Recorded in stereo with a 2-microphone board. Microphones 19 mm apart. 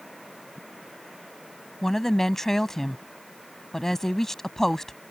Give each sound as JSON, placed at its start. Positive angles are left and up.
{"t": 1.8, "sound": "a woman speaking", "side_deg": 20}